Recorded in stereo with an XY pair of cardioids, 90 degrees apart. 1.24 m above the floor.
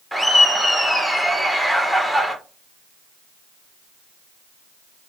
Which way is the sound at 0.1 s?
Straight ahead.